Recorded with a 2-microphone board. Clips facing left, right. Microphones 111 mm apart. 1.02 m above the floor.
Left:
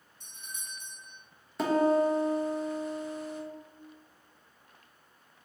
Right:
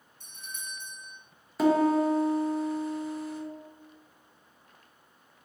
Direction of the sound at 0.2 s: 60° right (ahead or behind).